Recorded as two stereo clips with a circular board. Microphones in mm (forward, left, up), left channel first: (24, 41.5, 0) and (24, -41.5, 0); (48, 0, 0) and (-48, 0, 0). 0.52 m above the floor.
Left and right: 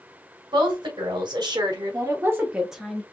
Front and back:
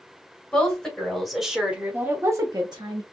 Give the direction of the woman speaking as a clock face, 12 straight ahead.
3 o'clock.